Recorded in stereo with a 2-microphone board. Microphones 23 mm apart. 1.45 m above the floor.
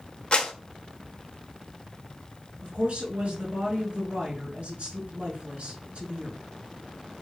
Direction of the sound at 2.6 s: 70° right (ahead or behind).